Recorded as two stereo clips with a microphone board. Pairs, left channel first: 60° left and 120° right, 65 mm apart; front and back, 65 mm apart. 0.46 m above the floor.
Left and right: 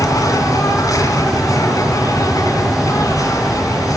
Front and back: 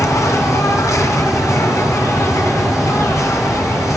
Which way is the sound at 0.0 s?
35° left.